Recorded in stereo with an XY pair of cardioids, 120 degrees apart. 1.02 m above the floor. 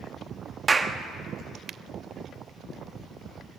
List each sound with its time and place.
0.7 s a clap: 25° right, 1.0 m